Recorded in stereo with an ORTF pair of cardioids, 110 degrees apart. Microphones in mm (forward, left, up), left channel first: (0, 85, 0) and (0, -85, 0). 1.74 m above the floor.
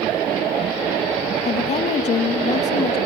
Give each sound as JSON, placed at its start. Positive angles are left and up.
{"t": 1.4, "sound": "a woman speaking", "azimuth_deg": 45, "distance_m": 2.5}